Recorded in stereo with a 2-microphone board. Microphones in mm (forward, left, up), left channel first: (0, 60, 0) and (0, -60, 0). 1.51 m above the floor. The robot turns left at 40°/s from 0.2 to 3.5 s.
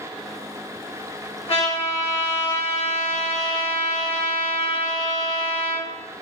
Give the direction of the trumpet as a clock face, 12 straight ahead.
8 o'clock.